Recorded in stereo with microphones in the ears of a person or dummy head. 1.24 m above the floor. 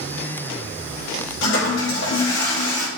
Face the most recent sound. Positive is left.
turn(degrees=80)